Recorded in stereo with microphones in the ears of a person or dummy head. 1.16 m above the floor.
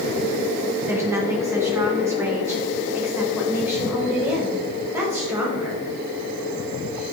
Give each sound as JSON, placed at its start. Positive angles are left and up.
{"t": 0.9, "sound": "a woman speaking", "side_deg": -15, "distance_m": 2.5}